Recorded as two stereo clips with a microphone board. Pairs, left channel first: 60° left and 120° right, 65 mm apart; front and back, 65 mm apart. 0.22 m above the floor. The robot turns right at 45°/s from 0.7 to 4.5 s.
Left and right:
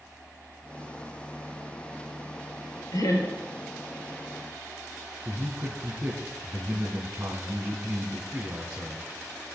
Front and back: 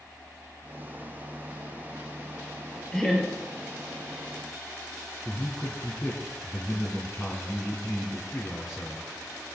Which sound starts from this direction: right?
A man speaking, at 5.2 s.